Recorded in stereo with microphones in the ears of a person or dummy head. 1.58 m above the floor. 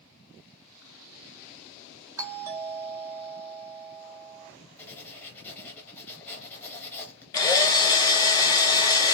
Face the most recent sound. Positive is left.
turn(degrees=20)  # may be behind; listen again after turning